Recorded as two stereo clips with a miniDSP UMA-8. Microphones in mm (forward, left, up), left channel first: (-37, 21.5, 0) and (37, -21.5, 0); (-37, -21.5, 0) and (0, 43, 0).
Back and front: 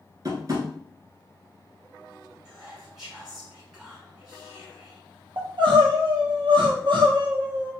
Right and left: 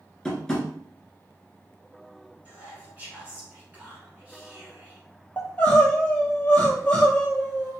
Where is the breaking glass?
I don't hear breaking glass.